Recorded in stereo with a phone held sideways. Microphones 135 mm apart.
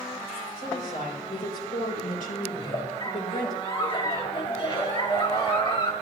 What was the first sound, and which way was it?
A woman speaking, 90° left.